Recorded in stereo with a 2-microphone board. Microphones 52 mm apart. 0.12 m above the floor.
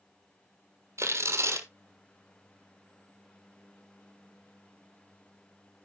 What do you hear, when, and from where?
1.0 s tearing paper: 65° right (ahead or behind), 1.3 m